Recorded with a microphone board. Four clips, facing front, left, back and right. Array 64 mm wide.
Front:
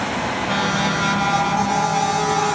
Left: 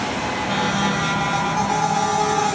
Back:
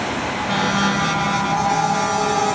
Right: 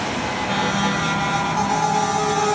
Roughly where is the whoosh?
No whoosh in this recording.